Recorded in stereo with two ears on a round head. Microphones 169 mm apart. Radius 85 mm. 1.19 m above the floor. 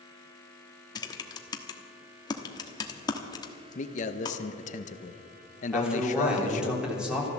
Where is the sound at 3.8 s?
40° left (ahead or behind), 0.8 m.